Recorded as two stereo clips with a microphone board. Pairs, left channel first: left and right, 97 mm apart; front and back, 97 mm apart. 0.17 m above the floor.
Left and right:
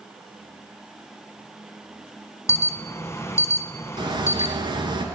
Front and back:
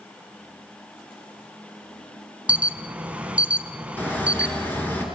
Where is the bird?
70° right, 3 m.